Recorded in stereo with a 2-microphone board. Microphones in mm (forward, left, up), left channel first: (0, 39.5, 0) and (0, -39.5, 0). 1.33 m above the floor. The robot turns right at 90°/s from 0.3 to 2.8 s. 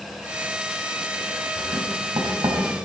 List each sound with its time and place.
1.6 s writing: 35° right (ahead or behind), 4 m